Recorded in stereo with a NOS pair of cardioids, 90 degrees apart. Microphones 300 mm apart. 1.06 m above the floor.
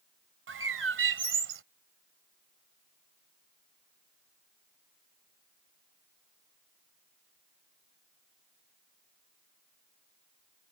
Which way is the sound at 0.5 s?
45° right.